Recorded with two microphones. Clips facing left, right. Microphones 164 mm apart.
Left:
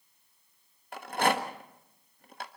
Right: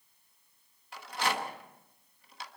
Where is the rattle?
55° left (ahead or behind), 1.4 m.